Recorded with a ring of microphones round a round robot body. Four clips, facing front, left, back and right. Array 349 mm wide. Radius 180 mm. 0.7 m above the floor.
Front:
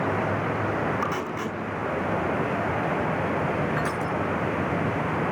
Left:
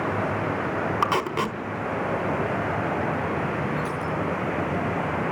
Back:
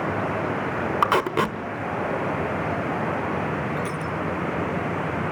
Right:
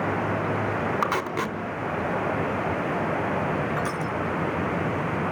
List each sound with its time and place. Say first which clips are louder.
1.0 s tape being pulled: left 2 dB, back 7 dB; 170° left, 1.5 m
3.8 s crushing: even, front 1 dB; 80° right, 5.5 m